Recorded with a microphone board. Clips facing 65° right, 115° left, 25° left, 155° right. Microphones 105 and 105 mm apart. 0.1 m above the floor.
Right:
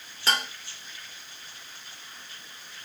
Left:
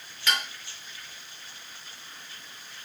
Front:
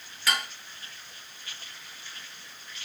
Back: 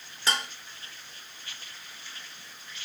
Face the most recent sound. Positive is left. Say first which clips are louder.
# right 2 dB, even
turn(degrees=-105)